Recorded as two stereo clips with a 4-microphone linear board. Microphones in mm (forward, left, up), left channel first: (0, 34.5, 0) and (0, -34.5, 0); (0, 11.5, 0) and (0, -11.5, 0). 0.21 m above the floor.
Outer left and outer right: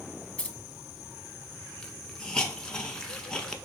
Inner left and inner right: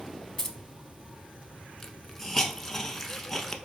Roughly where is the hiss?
Centre.